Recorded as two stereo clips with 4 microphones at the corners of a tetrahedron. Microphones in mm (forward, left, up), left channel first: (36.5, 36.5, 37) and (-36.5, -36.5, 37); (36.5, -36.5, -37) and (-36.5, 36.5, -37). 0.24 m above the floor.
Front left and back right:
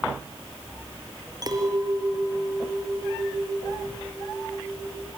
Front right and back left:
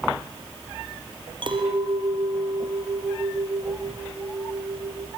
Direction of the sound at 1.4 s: 175° left.